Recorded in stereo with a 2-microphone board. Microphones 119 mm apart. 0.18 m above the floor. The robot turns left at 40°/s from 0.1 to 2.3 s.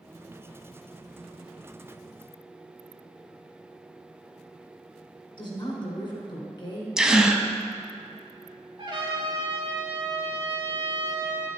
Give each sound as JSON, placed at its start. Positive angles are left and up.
{"t": 5.4, "sound": "a woman speaking", "side_deg": 40, "distance_m": 2.0}
{"t": 7.0, "sound": "a gasp", "side_deg": -5, "distance_m": 0.6}
{"t": 8.8, "sound": "a trumpet", "side_deg": -40, "distance_m": 2.0}